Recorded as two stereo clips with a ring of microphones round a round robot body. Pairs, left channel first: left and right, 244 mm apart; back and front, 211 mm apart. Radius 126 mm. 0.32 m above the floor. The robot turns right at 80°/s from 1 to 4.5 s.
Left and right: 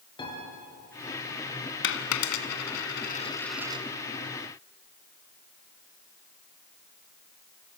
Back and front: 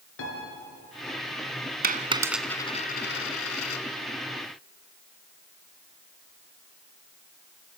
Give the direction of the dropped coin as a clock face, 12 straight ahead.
10 o'clock.